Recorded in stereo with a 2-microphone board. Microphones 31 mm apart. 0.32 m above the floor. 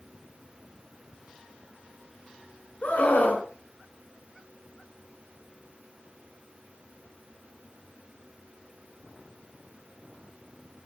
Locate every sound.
2.8 s a scream: 55° left (ahead or behind), 4.5 m